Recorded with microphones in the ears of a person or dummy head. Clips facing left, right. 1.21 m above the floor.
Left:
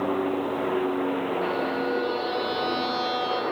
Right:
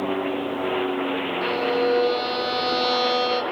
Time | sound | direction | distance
1.4 | a violin | 70° right (ahead or behind) | 1.1 m